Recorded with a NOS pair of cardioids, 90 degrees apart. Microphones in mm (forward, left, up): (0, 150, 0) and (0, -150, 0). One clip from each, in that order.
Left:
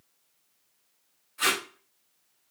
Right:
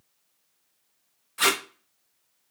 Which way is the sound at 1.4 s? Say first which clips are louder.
Right 3 dB; 55° right.